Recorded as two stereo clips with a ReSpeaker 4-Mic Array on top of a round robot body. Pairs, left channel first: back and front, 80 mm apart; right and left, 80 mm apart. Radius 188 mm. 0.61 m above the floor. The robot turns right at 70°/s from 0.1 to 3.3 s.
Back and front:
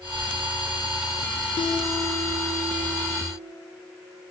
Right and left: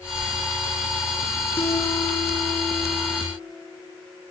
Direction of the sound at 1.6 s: 160° right.